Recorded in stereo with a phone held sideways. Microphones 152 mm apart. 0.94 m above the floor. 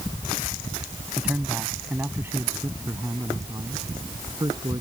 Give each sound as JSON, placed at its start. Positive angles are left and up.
{"t": 1.2, "sound": "a man speaking", "side_deg": -5}